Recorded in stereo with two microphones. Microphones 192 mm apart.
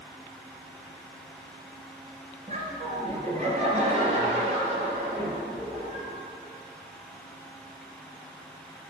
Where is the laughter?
40° right (ahead or behind), 2.5 m; by 6.1 s 30° right (ahead or behind), 4.5 m.